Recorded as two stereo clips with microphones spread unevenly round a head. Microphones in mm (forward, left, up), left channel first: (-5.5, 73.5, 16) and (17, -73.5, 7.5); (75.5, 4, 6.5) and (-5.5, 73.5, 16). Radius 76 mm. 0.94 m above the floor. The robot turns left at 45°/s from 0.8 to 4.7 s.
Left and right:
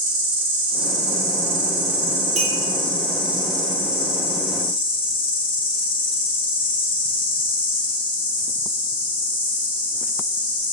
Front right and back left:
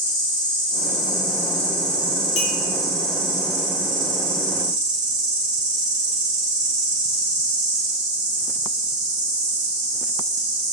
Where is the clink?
35° right, 0.9 m; by 2.5 s 40° right, 0.9 m.